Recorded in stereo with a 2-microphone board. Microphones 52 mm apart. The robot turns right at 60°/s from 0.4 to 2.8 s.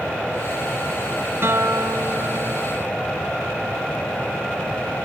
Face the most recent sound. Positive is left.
turn(degrees=-45)